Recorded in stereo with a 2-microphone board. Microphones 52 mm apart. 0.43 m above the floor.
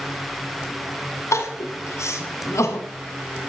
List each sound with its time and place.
1.3 s crying: 75° left (ahead or behind), 1.4 m